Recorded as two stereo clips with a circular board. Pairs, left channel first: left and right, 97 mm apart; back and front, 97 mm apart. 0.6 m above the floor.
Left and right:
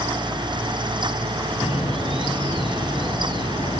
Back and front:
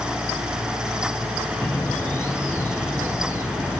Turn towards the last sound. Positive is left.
turn(degrees=115)